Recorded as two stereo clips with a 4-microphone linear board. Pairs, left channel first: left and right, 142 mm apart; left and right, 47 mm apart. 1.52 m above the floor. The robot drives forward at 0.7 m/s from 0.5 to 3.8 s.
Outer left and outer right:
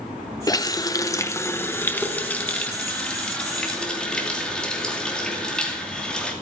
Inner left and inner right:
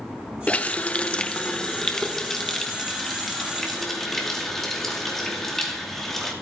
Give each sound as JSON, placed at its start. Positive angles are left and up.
{"t": 0.5, "sound": "a running tap", "side_deg": 25, "distance_m": 0.5}